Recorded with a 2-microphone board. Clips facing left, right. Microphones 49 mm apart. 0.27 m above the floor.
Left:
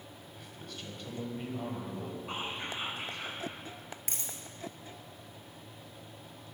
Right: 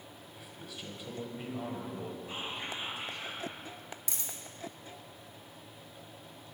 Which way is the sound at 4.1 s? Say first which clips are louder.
Left 1 dB; 50° left (ahead or behind).